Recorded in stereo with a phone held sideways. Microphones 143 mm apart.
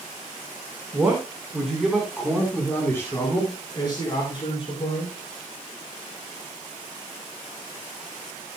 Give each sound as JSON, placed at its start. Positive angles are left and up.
{"t": 0.9, "sound": "a man speaking", "side_deg": -10, "distance_m": 5.0}